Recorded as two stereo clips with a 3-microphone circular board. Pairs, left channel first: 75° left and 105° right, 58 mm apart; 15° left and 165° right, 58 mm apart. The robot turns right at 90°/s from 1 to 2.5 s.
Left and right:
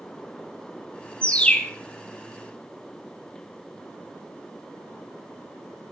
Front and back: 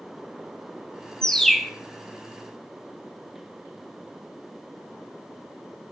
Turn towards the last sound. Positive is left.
turn(degrees=-175)